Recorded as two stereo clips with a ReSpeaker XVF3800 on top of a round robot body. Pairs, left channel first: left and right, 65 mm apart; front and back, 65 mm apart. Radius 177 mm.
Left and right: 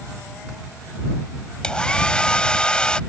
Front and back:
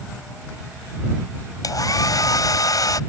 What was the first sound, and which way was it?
A hair dryer, 15° left.